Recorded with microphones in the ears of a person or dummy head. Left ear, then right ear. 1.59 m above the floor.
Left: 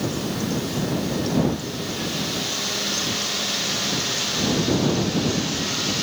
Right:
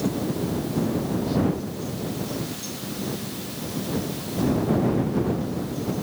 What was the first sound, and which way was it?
Only background noise.